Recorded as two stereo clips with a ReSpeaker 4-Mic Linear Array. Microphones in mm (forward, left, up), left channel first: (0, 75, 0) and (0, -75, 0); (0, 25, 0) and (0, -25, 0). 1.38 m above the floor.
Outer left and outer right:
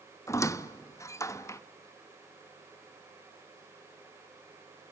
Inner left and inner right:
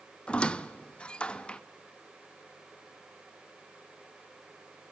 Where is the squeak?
20° left (ahead or behind), 0.8 m.